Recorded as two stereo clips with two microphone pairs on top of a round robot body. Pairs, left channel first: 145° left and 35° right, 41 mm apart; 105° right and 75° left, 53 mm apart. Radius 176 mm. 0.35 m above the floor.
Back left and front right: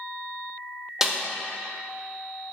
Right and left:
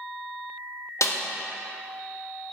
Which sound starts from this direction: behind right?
A snare drum, at 1.0 s.